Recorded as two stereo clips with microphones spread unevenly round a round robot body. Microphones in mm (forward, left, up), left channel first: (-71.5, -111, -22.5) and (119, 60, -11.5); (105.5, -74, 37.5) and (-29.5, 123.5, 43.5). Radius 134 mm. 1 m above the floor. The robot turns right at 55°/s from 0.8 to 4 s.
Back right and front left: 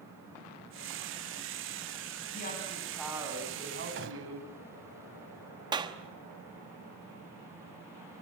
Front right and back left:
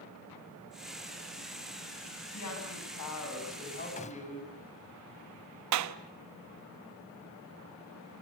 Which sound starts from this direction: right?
A woman speaking, at 2.3 s.